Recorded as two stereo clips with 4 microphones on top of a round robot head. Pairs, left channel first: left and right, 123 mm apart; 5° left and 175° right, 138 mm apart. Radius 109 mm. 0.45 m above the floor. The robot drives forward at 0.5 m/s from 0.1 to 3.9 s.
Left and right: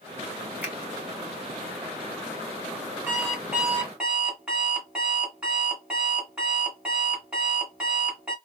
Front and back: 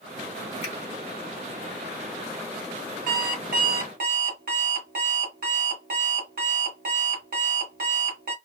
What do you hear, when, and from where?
0.6 s a finger snap: 15° right, 1.6 m
3.1 s an alarm clock: 170° right, 1.3 m; by 8.3 s 175° right, 1.7 m